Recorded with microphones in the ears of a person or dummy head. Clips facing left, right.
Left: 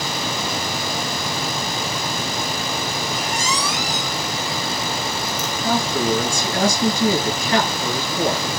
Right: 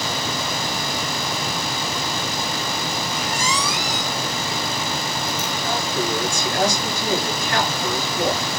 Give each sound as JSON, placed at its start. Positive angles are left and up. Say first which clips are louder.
{"t": 3.1, "sound": "a squeak", "louder": "even", "side_deg": 45, "distance_m": 4.0}
{"t": 5.6, "sound": "a man speaking", "louder": "left 5 dB", "side_deg": 75, "distance_m": 3.5}